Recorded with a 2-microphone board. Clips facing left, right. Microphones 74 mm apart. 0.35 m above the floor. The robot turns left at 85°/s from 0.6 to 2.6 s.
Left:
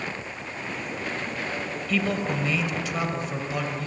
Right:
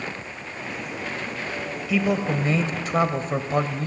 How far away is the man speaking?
About 1.5 m.